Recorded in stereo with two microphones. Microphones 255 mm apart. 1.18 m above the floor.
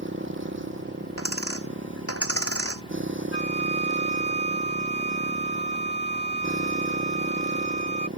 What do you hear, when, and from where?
0.0 s a motorcycle: 50° right (ahead or behind)
1.2 s a dropped coin: 60° left (ahead or behind)
3.3 s a flute: 45° left (ahead or behind)